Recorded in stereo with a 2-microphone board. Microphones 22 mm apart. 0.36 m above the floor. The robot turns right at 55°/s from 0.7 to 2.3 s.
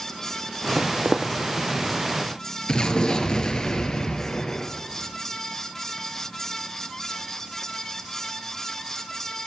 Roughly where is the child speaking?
I don't hear a child speaking.